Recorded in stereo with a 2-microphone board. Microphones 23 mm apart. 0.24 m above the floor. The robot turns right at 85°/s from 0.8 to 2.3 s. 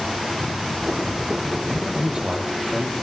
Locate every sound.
1.6 s a man speaking: 165° left, 9 m; by 2.9 s 140° right, 9 m